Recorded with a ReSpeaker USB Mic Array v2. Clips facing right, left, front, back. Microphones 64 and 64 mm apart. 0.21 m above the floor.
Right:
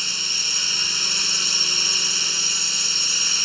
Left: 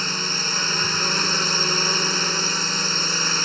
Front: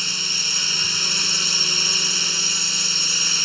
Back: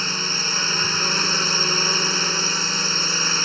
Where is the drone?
135° left.